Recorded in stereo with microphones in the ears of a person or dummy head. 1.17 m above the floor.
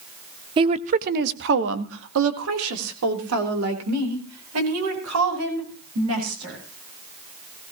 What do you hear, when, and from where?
0.6 s a woman speaking: 30° right (ahead or behind), 1.0 m; by 6.6 s 80° right, 6 m